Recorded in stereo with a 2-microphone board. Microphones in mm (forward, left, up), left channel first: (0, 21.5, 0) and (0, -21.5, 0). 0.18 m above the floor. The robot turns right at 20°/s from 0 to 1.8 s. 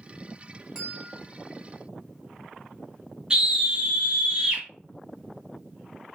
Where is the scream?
20° right (ahead or behind), 1.8 m.